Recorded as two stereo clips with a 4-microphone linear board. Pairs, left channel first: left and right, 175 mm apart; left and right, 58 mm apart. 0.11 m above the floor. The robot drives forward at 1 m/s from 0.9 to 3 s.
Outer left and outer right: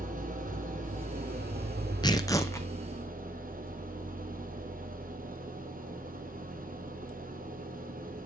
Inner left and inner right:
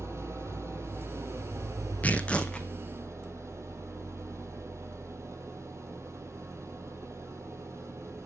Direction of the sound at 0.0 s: 50° right (ahead or behind).